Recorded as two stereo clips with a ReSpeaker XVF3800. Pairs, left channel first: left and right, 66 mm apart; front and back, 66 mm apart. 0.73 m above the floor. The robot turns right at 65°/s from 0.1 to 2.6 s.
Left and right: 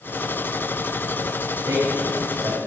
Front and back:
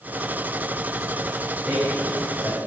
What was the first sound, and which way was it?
A man speaking, 105° right.